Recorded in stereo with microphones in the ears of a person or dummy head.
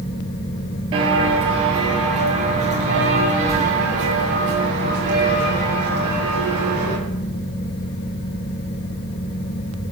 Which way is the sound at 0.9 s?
30° right (ahead or behind).